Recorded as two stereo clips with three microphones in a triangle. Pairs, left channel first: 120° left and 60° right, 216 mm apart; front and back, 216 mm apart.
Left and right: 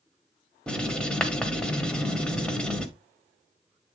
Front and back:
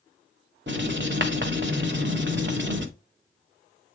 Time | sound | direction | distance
0.7 | writing | 155° right | 1.2 m